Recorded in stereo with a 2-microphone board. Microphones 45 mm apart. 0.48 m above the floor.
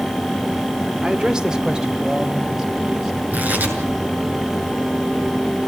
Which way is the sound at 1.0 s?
20° right (ahead or behind).